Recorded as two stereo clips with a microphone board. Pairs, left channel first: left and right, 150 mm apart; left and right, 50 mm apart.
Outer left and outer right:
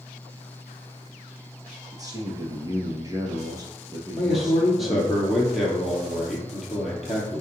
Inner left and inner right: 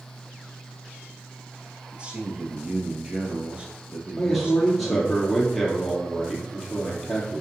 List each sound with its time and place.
1.9 s a man speaking: 25° right (ahead or behind), 2.0 m
4.2 s a man speaking: centre (ahead or behind), 2.5 m